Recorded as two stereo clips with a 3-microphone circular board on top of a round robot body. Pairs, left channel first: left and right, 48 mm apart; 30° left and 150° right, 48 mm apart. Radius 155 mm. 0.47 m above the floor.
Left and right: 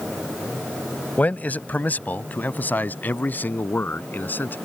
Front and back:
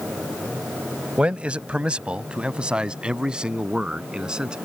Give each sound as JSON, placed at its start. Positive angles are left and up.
{"t": 1.2, "sound": "a man speaking", "azimuth_deg": 145}